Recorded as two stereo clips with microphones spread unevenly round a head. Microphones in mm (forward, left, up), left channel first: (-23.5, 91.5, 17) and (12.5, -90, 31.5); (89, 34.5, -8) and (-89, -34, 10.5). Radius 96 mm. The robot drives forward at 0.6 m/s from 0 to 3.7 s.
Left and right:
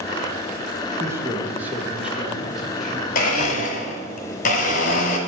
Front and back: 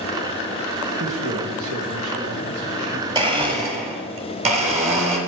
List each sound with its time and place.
1.0 s a man speaking: 155° right, 1.1 m; by 3.0 s 170° right, 2 m
3.1 s a blender: 140° left, 1.2 m; by 5.2 s 150° left, 1.5 m